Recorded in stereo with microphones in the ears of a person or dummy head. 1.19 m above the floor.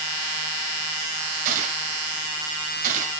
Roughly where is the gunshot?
Right.